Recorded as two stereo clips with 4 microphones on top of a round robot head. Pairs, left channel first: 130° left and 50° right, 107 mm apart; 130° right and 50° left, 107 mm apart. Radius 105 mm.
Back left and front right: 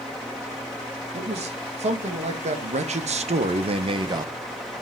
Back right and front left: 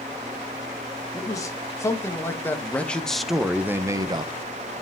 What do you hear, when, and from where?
1.1 s a man speaking: 70° right, 2.5 m; by 4.3 s 10° left, 1.0 m